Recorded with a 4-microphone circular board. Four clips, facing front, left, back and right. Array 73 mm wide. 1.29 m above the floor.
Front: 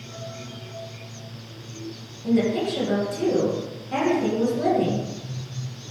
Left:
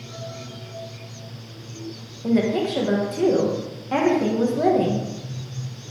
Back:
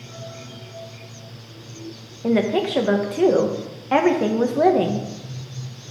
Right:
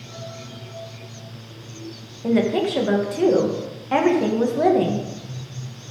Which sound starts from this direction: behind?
A woman speaking, at 2.2 s.